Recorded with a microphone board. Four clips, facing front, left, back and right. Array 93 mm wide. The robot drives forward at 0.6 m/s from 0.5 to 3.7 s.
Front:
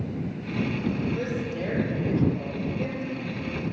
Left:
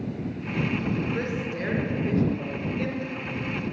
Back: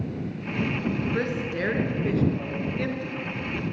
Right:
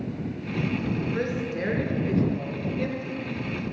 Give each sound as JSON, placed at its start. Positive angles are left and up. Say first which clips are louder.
{"t": 1.1, "sound": "a woman speaking", "louder": "right 1 dB, back 2 dB", "azimuth_deg": 180, "distance_m": 2.5}